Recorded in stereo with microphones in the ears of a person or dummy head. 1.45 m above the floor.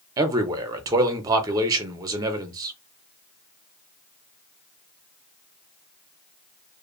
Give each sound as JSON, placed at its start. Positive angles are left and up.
{"t": 0.2, "sound": "a man speaking", "side_deg": -25, "distance_m": 0.6}